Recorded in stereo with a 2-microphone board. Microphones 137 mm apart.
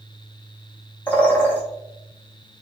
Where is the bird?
15° left (ahead or behind), 0.6 m.